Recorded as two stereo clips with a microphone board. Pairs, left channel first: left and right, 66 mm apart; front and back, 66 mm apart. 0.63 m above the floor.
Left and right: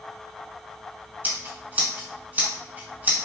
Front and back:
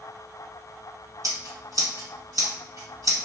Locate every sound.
1.2 s scissors: 150° right, 1.6 m